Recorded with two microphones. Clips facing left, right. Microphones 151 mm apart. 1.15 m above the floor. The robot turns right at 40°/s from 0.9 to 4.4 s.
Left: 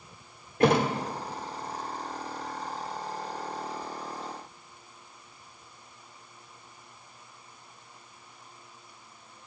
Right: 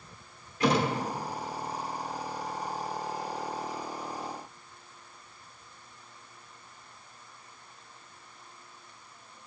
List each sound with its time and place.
0.6 s a thud: 55° left (ahead or behind), 1.2 m